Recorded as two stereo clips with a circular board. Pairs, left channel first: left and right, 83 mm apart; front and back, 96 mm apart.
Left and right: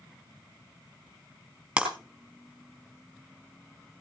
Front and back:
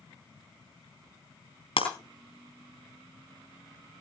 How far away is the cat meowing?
I don't hear a cat meowing.